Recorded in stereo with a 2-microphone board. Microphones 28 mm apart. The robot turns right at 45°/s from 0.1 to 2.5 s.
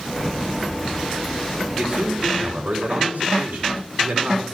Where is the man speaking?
155° right, 4 m; by 4.4 s 120° right, 4 m.